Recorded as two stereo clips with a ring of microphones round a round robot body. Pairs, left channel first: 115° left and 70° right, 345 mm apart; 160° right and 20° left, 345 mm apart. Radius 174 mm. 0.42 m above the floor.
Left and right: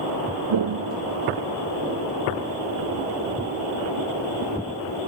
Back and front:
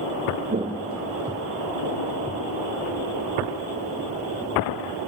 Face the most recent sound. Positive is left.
turn(degrees=-150)